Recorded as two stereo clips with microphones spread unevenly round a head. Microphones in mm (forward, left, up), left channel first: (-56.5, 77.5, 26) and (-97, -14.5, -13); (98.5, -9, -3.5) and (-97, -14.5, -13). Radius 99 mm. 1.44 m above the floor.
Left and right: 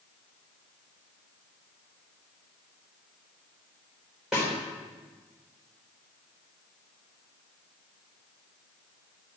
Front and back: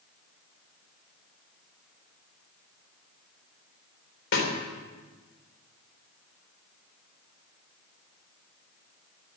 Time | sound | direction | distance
4.3 | a snare drum | 20° right | 3.5 m